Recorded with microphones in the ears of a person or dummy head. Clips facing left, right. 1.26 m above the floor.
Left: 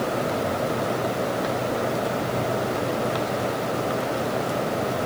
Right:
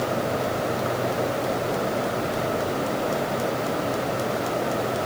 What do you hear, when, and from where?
Only background noise.